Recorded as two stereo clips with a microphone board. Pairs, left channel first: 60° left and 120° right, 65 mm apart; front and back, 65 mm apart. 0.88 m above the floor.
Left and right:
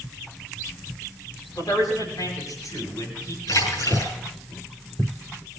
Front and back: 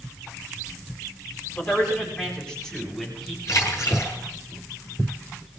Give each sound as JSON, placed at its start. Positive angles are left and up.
{"t": 1.6, "sound": "a man speaking", "azimuth_deg": 75, "distance_m": 10.0}
{"t": 3.5, "sound": "a splash", "azimuth_deg": 35, "distance_m": 6.0}